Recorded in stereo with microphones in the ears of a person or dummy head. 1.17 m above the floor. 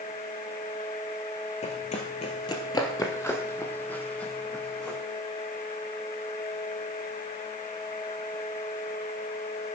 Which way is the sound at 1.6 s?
35° left (ahead or behind).